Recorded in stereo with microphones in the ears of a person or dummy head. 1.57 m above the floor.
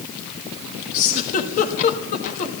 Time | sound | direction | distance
0.9 | a giggle | 45° left (ahead or behind) | 1.7 m